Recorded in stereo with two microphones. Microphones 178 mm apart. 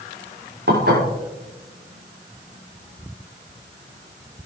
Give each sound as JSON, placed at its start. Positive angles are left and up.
{"t": 0.7, "sound": "dishes clattering", "side_deg": -70, "distance_m": 6.5}